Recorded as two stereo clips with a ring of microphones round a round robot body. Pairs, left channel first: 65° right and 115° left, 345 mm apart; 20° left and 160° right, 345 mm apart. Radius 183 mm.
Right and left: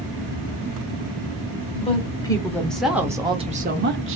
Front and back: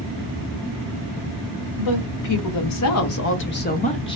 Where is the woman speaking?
5° left, 1.6 m; by 4.2 s 95° left, 1.1 m.